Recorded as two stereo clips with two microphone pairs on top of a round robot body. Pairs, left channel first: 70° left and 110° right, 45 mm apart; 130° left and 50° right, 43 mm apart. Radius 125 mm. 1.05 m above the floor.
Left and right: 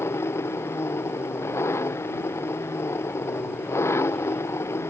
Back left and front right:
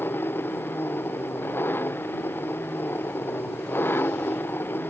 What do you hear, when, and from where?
0.0 s an engine running: 85° left